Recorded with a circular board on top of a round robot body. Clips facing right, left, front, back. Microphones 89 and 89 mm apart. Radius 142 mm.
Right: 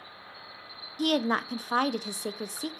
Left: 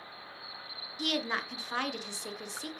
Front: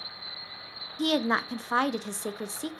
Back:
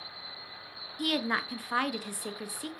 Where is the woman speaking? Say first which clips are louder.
Right 7 dB, front 5 dB; 60° right, 0.6 m.